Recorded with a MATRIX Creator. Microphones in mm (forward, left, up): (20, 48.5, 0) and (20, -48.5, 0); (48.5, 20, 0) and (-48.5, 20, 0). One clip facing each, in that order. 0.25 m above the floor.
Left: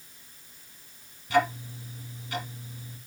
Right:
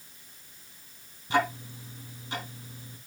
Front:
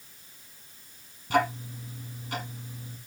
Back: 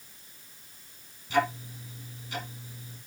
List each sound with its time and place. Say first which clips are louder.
1.3 s ticking: left 2 dB, front 1 dB; 30° right, 4.5 m